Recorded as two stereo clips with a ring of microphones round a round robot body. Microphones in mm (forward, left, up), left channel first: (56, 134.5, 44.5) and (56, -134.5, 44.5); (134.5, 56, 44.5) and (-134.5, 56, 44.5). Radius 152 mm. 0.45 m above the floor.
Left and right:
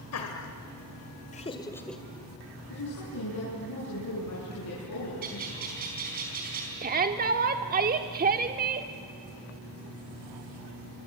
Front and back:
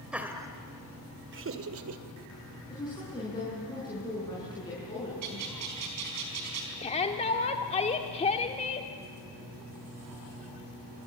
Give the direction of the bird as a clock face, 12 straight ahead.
5 o'clock.